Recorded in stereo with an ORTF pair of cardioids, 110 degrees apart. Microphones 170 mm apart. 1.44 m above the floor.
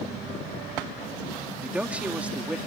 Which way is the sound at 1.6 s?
10° right.